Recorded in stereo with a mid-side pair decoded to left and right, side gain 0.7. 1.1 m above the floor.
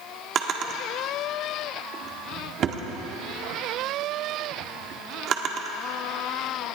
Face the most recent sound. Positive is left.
turn(degrees=-45)